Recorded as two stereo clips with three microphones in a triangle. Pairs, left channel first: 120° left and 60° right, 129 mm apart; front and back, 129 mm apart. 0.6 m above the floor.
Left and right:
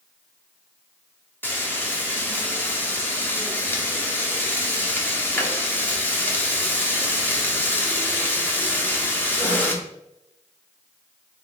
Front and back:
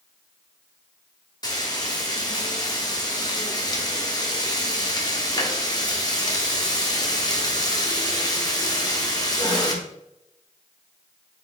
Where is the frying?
50° left, 0.9 m.